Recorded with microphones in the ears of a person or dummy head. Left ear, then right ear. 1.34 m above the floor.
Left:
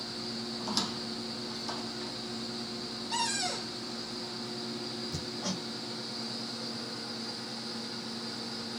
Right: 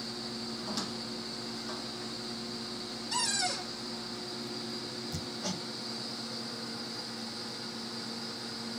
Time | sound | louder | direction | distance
0.6 | a squeak | left 6 dB | 25° left (ahead or behind) | 1.0 m
3.1 | a cupboard door | right 1 dB | 15° right (ahead or behind) | 2 m
5.1 | hammering | left 1 dB | 5° right (ahead or behind) | 0.8 m